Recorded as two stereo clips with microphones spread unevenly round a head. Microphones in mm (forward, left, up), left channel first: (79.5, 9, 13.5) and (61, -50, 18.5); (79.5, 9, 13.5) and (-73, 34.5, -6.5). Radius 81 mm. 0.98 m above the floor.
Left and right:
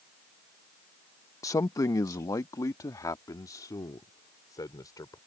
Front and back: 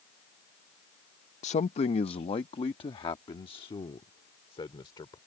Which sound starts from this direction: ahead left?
A man speaking, at 1.4 s.